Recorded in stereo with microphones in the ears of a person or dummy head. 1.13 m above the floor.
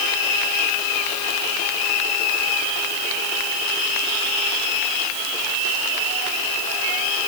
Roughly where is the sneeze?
I don't hear a sneeze.